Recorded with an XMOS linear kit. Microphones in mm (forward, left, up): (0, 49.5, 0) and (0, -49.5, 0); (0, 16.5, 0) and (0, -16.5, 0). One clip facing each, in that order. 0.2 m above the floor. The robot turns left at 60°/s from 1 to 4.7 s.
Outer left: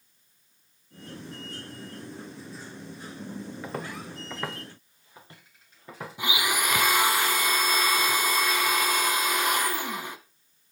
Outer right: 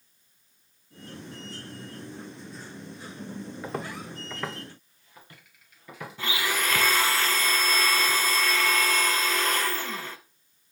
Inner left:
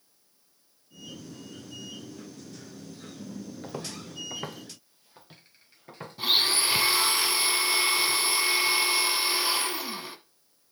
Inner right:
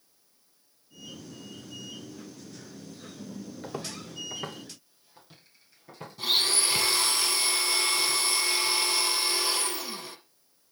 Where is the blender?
15° left (ahead or behind), 0.6 m.